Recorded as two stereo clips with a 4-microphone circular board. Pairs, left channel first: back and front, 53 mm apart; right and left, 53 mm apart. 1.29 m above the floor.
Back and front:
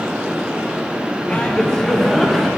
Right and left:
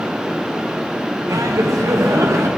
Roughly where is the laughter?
Left.